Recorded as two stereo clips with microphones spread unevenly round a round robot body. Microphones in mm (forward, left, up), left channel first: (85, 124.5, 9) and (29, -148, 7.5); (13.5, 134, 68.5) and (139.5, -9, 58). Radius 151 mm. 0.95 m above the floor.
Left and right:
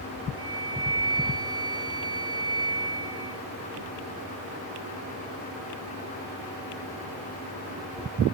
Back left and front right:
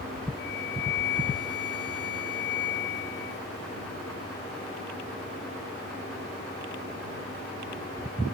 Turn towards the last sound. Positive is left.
turn(degrees=180)